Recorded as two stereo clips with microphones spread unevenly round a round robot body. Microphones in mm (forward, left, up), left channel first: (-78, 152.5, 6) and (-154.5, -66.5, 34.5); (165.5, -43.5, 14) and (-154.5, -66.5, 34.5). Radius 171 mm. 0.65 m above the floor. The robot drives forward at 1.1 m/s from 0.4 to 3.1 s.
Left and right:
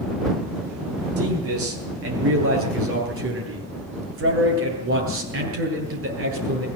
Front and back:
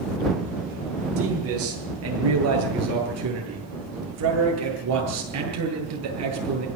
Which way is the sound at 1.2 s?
125° right.